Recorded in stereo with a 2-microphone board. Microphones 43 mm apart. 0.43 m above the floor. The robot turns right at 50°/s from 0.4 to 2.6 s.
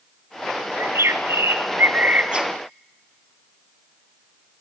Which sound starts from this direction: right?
A bird, at 0.8 s.